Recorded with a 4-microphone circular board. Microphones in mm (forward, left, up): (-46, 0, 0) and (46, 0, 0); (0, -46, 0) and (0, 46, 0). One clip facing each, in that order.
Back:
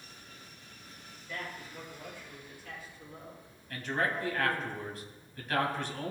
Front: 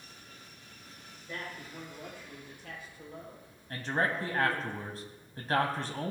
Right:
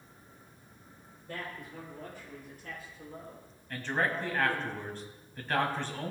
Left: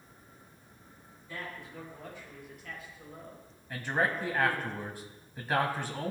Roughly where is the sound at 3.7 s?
Ahead.